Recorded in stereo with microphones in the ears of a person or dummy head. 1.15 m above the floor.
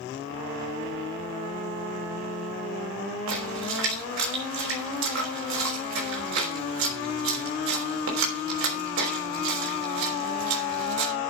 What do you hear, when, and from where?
3.3 s a splash: 75° right (ahead or behind), 5 m